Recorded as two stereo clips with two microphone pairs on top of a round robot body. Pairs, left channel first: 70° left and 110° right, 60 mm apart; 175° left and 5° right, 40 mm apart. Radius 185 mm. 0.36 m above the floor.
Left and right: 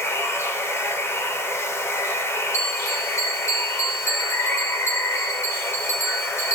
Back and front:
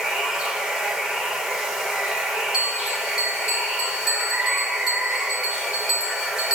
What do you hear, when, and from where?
0.0 s running water: 60° left, 1.6 m
2.5 s a bell: 55° left, 1.9 m